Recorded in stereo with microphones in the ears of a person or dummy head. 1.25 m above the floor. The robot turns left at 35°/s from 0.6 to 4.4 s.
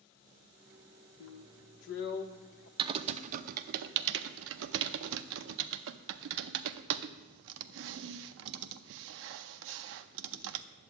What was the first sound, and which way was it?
A drill, 95° left.